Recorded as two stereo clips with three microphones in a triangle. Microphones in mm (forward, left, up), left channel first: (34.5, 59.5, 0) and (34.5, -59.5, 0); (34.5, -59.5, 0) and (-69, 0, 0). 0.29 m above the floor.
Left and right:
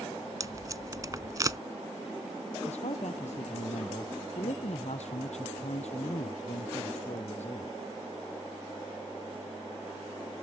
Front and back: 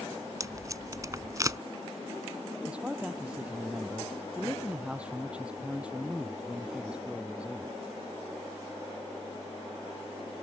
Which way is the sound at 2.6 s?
70° left.